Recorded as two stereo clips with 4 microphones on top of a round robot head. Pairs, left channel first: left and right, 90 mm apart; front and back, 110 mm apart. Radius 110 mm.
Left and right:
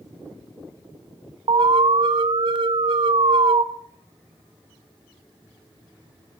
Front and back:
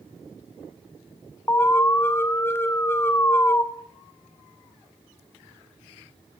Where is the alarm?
70° right, 1.2 m.